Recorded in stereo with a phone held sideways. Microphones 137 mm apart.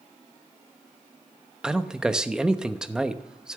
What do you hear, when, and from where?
1.6 s a man speaking: 5° right (ahead or behind), 0.9 m